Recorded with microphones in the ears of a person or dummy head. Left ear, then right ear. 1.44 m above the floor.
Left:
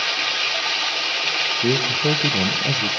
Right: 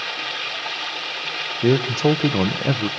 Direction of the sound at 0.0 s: 20° left (ahead or behind).